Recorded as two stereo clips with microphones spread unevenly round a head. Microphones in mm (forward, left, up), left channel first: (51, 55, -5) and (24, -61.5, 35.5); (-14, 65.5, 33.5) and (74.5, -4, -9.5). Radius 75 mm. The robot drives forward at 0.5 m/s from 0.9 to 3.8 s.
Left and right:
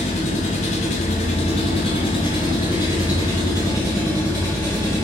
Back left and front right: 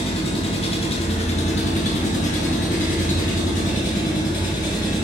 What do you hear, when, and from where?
0.0 s an engine running: 105° left, 1.2 m; by 5.0 s 145° left, 2 m